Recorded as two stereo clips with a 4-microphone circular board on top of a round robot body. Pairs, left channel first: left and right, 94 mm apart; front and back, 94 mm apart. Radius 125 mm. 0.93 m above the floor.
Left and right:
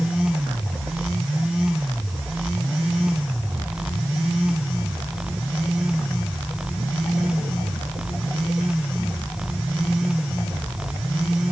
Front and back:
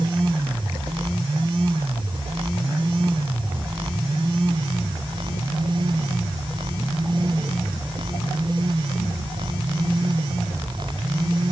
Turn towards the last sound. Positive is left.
No sound to turn to.